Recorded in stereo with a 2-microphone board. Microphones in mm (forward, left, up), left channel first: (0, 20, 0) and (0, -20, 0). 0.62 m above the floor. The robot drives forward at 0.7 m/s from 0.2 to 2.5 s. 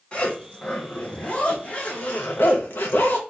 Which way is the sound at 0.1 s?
25° left (ahead or behind).